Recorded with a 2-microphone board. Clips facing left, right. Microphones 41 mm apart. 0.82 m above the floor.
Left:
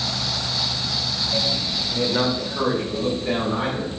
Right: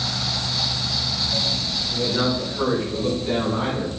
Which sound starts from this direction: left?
A man speaking, at 1.9 s.